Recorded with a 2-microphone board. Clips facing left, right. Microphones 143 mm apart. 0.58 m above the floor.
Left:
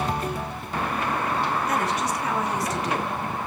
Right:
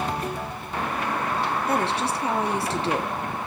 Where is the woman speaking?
30° right (ahead or behind), 1.3 m.